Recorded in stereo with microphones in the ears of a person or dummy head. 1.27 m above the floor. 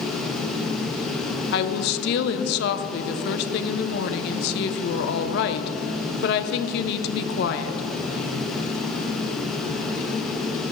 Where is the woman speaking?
60° left (ahead or behind), 0.6 m.